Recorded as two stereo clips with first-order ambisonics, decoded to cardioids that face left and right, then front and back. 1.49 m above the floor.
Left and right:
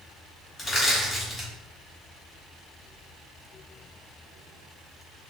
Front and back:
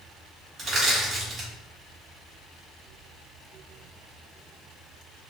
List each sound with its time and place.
0.6 s crushing: 120° left, 1.4 m